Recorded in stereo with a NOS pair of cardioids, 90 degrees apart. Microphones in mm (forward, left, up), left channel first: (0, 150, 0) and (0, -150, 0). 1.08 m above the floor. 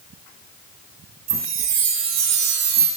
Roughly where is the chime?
Ahead right.